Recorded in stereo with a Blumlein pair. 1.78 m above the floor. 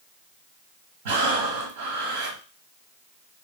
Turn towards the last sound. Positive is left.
turn(degrees=-55)